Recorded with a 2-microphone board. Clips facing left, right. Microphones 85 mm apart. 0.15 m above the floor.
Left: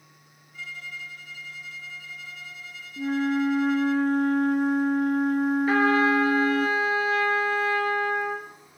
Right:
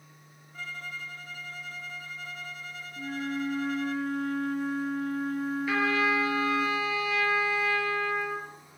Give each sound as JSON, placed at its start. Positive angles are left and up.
{"t": 0.5, "sound": "a violin", "side_deg": -45, "distance_m": 0.7}
{"t": 3.0, "sound": "a flute", "side_deg": 50, "distance_m": 0.7}
{"t": 5.7, "sound": "a trumpet", "side_deg": 40, "distance_m": 2.5}